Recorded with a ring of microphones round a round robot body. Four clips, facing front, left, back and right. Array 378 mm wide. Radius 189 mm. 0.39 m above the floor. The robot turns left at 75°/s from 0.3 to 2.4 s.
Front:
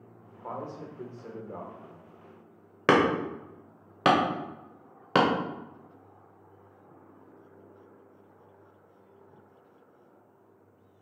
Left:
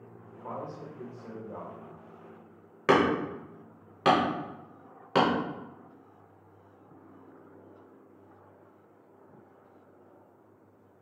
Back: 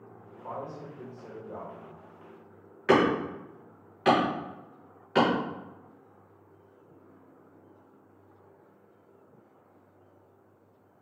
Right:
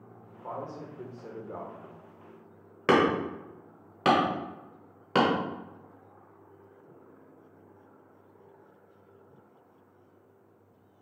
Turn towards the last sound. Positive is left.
turn(degrees=-5)